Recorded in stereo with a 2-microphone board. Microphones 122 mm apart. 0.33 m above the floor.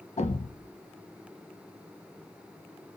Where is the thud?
65° left (ahead or behind), 0.6 m.